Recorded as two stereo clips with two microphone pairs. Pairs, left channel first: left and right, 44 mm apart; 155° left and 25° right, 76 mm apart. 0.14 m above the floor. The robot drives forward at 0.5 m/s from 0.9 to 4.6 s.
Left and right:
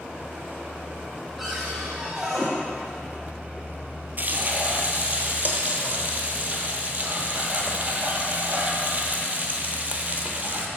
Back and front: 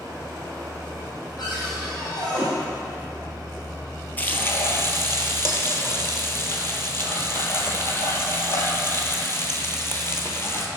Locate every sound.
1.4 s a cupboard door: 175° right, 2.5 m
4.2 s frying: 135° right, 0.7 m; by 10.7 s 150° right, 0.8 m